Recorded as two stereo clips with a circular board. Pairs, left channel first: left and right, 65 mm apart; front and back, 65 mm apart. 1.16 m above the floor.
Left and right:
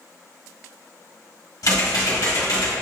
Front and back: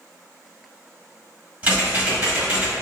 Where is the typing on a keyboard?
110° left, 1.7 m.